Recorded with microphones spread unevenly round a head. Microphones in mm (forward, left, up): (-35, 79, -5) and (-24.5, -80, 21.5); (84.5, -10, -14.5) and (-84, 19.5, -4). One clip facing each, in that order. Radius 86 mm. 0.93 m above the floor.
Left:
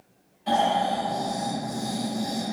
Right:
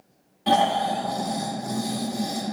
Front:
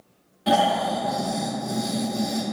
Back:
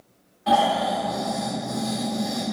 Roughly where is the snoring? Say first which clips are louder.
Right 2 dB, even; ahead right.